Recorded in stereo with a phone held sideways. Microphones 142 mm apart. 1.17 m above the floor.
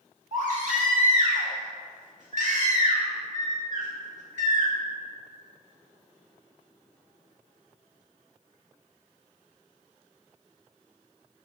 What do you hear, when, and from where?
0.3 s a baby crying: 55° right (ahead or behind), 1.3 m